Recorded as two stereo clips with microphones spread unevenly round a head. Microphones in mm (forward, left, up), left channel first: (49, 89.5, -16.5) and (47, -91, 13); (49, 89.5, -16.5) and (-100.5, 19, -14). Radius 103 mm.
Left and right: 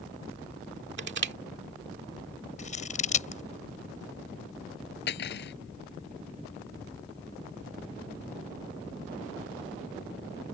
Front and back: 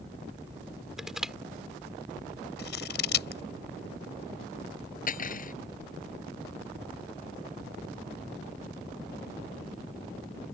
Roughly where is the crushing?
Ahead right.